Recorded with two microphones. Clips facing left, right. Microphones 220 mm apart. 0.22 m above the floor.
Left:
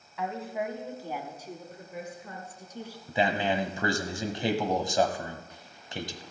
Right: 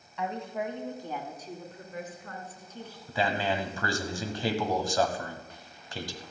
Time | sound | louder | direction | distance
0.2 | a woman speaking | even | centre (ahead or behind) | 1.6 m
3.1 | a man speaking | left 2 dB | 20° left (ahead or behind) | 1.0 m